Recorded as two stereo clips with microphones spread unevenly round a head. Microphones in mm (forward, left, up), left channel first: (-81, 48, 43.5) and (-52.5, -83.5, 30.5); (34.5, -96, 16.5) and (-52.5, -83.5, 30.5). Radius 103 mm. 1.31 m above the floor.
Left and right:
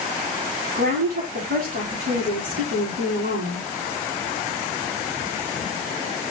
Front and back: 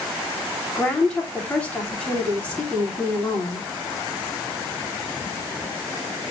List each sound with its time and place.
0.8 s a woman speaking: 80° right, 8.5 m